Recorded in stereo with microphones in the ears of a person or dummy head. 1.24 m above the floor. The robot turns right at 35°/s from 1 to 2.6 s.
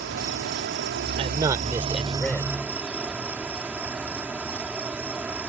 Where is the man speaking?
30° right; by 2.5 s 15° left.